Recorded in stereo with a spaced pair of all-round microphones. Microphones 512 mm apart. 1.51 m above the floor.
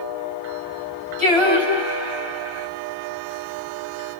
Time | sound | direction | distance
1.2 | singing | 60° right (ahead or behind) | 2 m